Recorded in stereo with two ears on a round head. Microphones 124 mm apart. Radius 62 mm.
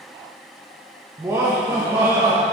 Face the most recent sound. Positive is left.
turn(degrees=-20)  # may be behind; listen again after turning